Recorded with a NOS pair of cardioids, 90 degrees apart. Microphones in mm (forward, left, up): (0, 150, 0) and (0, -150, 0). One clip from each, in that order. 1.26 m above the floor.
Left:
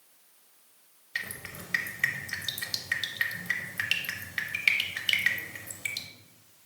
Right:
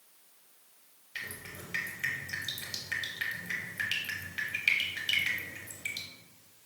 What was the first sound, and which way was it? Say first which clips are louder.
Dripping: left 5 dB; 35° left.